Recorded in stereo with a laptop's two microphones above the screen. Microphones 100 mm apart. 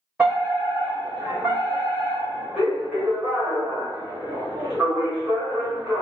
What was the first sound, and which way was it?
A fire alarm, centre (ahead or behind).